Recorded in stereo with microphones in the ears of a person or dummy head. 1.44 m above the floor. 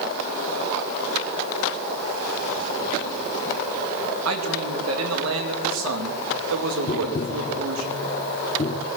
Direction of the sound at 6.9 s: 30° left (ahead or behind).